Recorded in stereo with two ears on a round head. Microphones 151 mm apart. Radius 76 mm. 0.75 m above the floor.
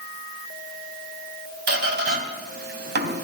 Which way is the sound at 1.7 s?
65° right (ahead or behind).